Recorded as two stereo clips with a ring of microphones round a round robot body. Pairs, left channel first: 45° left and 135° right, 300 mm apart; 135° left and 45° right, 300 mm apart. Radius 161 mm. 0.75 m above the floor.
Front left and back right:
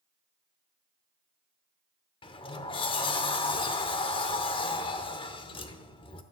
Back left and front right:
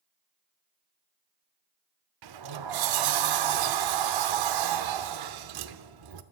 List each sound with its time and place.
2.2 s a sliding door: 30° right, 0.8 m